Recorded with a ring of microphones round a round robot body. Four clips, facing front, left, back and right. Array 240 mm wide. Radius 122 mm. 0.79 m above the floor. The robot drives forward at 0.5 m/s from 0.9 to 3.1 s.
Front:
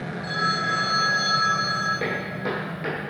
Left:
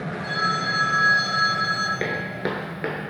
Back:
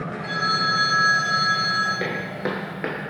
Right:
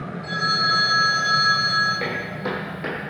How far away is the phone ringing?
About 0.8 m.